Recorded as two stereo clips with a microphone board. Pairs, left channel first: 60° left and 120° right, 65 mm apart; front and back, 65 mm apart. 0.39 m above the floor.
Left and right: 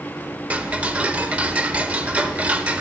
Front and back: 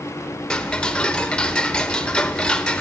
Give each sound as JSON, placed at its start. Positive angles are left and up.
{"t": 0.5, "sound": "ticking", "azimuth_deg": -70, "distance_m": 0.6}